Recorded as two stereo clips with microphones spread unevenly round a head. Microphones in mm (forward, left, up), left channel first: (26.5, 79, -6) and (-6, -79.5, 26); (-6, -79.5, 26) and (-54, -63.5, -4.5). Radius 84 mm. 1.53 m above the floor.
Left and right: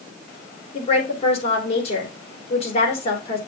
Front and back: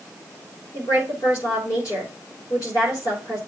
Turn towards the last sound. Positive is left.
turn(degrees=20)